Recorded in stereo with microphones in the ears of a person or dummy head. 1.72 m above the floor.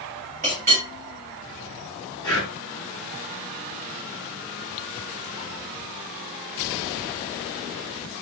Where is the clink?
35° right (ahead or behind), 2 m.